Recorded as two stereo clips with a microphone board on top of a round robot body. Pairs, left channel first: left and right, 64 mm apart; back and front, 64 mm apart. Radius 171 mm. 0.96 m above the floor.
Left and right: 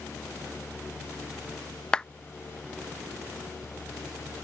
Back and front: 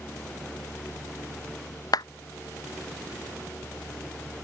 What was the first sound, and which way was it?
A clap, 165° left.